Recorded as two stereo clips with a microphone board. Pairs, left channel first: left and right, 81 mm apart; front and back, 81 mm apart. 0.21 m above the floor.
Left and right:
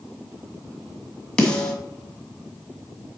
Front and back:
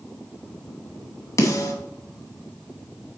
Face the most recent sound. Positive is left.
turn(degrees=20)